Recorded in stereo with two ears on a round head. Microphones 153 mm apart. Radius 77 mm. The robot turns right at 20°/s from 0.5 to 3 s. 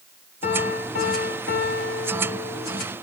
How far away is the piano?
About 4.5 m.